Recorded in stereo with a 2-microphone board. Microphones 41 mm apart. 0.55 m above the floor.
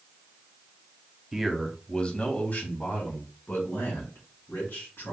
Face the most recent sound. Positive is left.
turn(degrees=75)  # may be behind; listen again after turning